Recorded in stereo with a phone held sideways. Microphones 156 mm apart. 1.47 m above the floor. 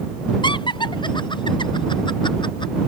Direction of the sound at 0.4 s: 30° left (ahead or behind).